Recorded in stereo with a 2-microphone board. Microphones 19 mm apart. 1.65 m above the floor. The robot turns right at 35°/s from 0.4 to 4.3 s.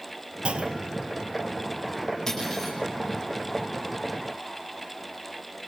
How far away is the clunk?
About 1.2 m.